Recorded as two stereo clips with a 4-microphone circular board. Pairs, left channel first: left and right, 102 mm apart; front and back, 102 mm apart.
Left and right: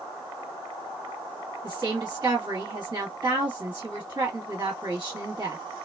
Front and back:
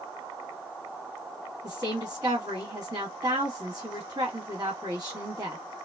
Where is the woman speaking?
140° right, 1.5 m.